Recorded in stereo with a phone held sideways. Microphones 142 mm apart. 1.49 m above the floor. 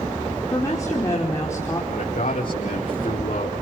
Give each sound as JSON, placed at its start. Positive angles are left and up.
{"t": 0.5, "sound": "a woman speaking", "side_deg": 20, "distance_m": 5.0}
{"t": 1.9, "sound": "a man speaking", "side_deg": 70, "distance_m": 5.0}